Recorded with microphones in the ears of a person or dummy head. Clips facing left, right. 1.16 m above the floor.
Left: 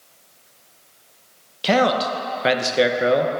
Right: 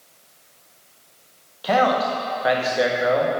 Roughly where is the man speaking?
Left.